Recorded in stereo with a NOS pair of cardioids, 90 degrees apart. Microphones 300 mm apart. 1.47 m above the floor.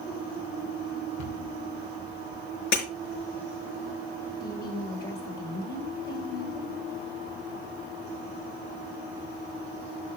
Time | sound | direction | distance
1.2 | a cupboard door | 65° left | 3 m
2.7 | breaking glass | 65° left | 6 m
4.4 | a woman speaking | 30° left | 4 m